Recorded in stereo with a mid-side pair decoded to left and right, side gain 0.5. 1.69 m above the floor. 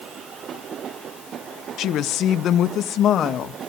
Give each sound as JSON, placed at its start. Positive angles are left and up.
{"t": 1.8, "sound": "a woman speaking", "azimuth_deg": 70, "distance_m": 1.2}